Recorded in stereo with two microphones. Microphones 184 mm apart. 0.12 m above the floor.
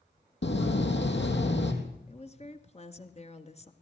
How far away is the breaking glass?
No breaking glass in this recording.